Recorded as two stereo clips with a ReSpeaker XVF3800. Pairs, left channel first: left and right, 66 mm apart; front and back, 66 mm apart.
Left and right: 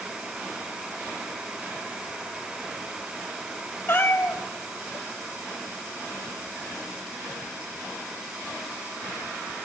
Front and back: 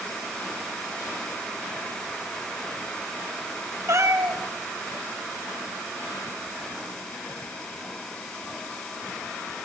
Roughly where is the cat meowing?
Behind left.